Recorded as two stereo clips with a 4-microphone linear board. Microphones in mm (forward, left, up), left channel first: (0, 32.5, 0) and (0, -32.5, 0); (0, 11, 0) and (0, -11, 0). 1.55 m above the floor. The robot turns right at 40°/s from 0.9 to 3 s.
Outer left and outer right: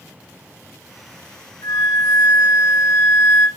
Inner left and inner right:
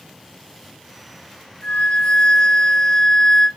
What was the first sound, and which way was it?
A flute, 75° left.